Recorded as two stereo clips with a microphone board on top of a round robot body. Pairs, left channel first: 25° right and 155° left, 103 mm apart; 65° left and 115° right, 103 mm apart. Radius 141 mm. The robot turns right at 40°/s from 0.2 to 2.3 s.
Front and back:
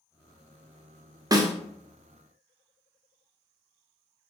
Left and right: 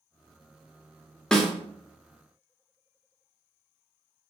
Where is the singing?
I don't hear singing.